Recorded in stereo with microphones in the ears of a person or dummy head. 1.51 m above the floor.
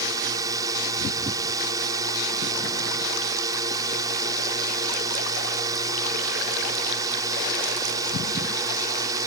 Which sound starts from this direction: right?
A drone, at 0.0 s.